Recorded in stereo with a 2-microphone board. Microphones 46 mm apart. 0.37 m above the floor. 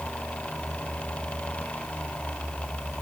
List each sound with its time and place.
Only background noise.